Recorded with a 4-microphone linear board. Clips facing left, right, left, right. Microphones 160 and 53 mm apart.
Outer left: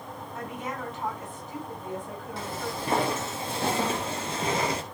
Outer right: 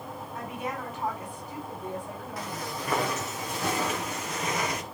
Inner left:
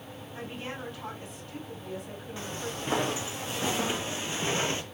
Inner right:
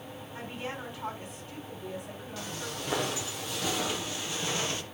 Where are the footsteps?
30° left (ahead or behind), 3.5 m.